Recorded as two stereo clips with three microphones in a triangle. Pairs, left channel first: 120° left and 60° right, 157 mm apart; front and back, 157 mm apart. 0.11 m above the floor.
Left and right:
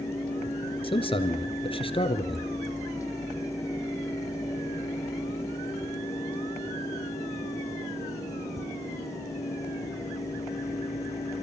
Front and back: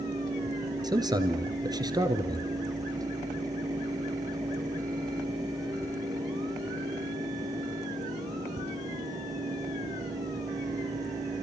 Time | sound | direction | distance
0.8 | a man speaking | 135° left | 1.8 m